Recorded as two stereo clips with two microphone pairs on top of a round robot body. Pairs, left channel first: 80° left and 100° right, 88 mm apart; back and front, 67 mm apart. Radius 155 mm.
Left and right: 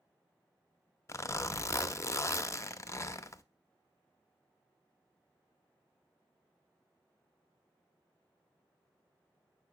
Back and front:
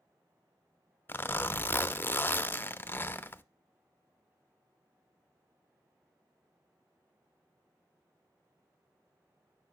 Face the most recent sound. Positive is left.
turn(degrees=135)